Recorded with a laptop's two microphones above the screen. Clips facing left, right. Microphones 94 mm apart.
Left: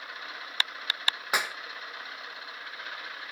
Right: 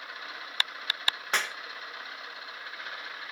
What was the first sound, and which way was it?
A clap, 10° left (ahead or behind).